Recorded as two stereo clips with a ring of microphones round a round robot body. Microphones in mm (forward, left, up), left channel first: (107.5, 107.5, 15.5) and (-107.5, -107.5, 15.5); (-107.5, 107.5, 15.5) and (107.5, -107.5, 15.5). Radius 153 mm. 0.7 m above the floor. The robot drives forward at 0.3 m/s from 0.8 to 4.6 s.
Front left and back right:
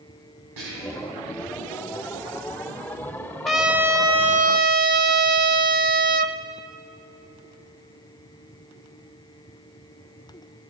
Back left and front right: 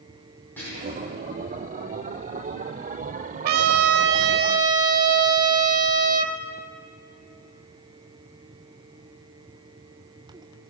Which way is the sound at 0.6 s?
140° right.